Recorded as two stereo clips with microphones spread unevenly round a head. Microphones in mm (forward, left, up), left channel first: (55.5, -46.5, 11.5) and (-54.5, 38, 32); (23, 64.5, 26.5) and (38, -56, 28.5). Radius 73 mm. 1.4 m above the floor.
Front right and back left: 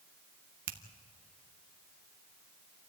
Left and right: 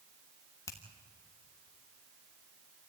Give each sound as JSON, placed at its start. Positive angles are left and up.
{"t": 0.7, "sound": "a finger snap", "azimuth_deg": 165, "distance_m": 1.4}